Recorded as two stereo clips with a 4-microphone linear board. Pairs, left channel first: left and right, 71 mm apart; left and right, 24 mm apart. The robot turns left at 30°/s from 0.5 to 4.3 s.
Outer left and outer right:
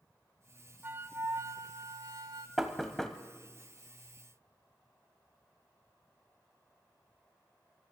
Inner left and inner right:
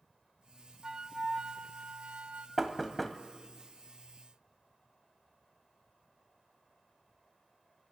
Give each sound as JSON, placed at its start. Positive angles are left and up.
{"t": 0.8, "sound": "a flute", "azimuth_deg": -30, "distance_m": 0.6}
{"t": 2.6, "sound": "knocking", "side_deg": -5, "distance_m": 1.0}